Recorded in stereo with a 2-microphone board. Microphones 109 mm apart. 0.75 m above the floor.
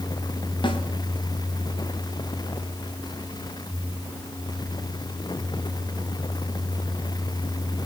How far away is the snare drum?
About 3.5 m.